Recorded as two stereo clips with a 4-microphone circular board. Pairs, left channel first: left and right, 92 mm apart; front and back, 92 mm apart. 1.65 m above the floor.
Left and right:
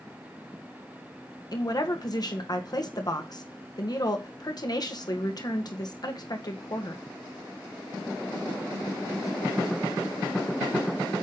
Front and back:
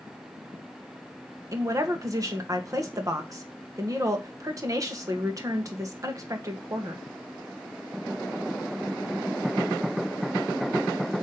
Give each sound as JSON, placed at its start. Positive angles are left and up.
{"t": 1.5, "sound": "a woman speaking", "azimuth_deg": 130, "distance_m": 1.6}